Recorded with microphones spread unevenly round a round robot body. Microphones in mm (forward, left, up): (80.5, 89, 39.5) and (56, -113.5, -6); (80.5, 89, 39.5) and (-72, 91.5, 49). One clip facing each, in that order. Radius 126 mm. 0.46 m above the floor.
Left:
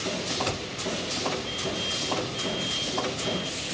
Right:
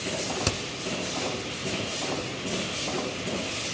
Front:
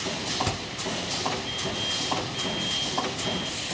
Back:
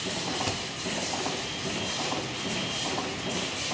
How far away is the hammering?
About 1.6 m.